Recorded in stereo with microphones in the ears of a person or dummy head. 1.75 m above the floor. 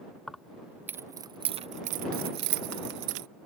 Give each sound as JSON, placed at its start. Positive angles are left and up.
{"t": 0.3, "sound": "keys jangling", "side_deg": 0}